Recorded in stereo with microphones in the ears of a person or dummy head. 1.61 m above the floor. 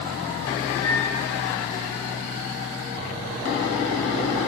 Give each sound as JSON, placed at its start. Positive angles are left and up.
{"t": 0.8, "sound": "a microwave", "side_deg": 10, "distance_m": 8.0}